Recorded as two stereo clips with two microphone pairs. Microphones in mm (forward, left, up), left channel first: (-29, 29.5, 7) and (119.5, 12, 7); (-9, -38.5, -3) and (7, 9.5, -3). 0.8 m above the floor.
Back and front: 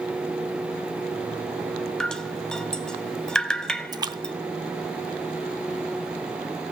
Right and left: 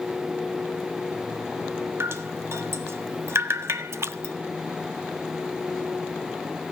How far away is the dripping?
About 1.4 m.